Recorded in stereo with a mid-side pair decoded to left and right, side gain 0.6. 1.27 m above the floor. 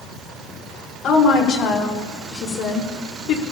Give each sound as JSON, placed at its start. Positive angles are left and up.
{"t": 1.0, "sound": "a woman speaking", "azimuth_deg": 60, "distance_m": 5.0}